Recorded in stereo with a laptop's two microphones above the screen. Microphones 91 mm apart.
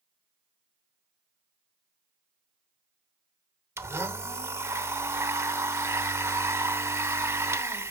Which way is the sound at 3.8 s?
30° right (ahead or behind).